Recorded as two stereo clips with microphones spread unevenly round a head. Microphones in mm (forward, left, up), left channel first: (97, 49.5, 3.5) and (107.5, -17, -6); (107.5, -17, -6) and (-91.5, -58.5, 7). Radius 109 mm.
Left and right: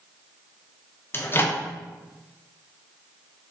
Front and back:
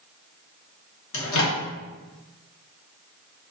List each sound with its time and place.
1.1 s a microwave: 45° left, 0.6 m